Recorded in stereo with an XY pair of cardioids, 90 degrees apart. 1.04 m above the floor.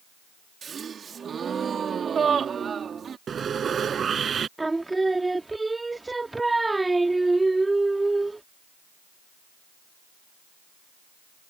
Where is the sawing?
50° right.